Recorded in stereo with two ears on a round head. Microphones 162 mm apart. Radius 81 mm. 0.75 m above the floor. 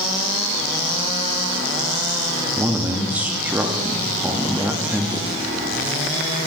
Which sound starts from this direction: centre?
A man speaking, at 2.5 s.